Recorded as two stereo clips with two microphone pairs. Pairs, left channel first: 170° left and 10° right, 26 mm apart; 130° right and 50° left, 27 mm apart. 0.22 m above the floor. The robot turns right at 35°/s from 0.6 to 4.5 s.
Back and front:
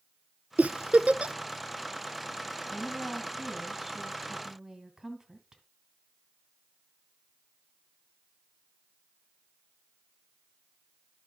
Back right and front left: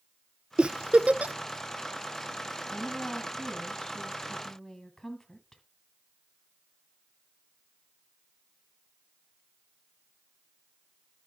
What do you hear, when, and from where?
0.6 s a giggle: 5° left, 0.5 m; by 1.4 s 30° left, 0.5 m
2.7 s a woman speaking: 120° right, 1.7 m; by 5.6 s 55° right, 1.7 m